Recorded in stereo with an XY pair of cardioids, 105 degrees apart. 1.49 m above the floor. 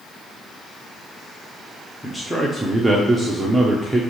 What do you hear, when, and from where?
2.0 s a man speaking: 5° right, 1.0 m